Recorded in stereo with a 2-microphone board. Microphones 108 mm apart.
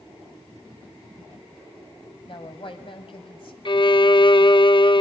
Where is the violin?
45° left (ahead or behind), 0.6 m.